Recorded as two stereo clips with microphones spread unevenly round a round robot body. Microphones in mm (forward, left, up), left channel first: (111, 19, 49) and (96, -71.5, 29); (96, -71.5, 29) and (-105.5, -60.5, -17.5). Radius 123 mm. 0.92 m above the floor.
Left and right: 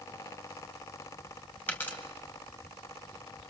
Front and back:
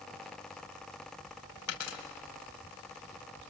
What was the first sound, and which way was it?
A dropped coin, 10° left.